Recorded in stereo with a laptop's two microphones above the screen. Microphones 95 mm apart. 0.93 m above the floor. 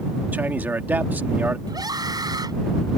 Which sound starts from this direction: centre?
A man speaking, at 0.3 s.